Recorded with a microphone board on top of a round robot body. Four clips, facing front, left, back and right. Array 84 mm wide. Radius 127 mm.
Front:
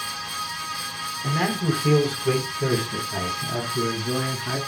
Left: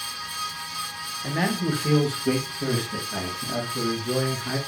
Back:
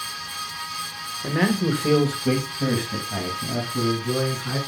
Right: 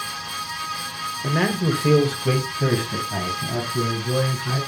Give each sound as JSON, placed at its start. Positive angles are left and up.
{"t": 1.2, "sound": "a man speaking", "azimuth_deg": -120, "distance_m": 2.0}